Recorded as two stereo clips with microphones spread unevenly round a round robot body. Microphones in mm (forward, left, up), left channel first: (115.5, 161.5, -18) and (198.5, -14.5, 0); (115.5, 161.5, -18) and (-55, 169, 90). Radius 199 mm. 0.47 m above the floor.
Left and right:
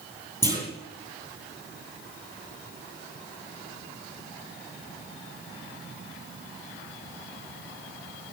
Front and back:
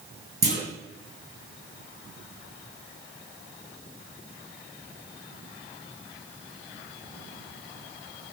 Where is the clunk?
160° right, 9 m.